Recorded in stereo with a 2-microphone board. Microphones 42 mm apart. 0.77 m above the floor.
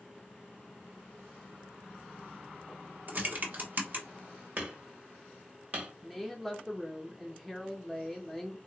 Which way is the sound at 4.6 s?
40° right (ahead or behind).